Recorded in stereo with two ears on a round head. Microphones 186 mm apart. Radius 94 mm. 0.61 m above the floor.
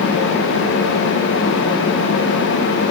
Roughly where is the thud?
I don't hear a thud.